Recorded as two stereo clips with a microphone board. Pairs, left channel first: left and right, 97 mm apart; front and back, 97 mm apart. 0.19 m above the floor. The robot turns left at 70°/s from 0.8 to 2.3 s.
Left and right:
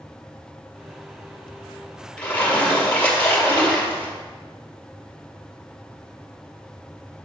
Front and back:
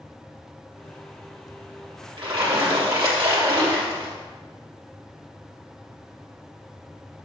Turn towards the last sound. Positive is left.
turn(degrees=160)